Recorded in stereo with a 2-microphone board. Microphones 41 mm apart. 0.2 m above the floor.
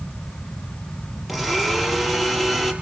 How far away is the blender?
About 4 m.